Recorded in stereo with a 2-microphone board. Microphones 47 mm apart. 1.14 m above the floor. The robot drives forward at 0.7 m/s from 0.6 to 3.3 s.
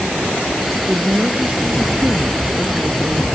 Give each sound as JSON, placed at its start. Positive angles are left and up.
{"t": 0.9, "sound": "a woman speaking", "side_deg": -35}